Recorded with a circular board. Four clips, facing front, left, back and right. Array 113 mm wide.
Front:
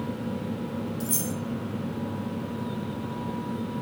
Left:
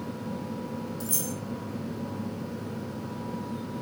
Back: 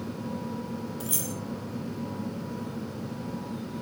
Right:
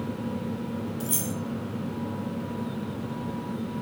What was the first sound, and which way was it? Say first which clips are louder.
Keys jangling: right 3 dB, front 4 dB; 145° right.